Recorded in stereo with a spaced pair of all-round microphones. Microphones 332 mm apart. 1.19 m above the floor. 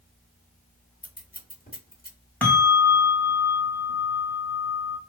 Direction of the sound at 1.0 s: 25° left (ahead or behind).